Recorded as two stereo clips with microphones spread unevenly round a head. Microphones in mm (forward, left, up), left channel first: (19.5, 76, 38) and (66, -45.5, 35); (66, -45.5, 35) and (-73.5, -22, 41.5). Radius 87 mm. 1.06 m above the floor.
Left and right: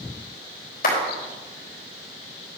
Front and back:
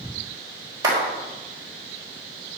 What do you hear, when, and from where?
0.8 s a clap: 100° left, 4.5 m